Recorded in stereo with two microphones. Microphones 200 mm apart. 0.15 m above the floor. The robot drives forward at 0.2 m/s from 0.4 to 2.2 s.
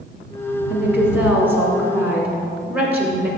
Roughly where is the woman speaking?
Centre.